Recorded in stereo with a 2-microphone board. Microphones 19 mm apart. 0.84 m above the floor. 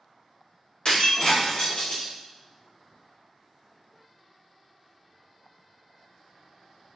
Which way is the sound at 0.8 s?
75° left (ahead or behind).